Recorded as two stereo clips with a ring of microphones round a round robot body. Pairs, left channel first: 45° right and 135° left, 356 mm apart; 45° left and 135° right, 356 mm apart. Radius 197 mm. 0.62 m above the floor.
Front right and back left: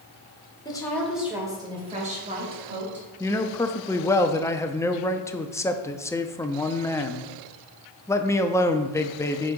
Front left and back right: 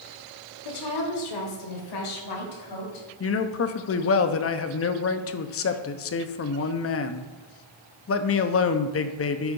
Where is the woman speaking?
35° left, 2 m; by 3.1 s 75° left, 4 m.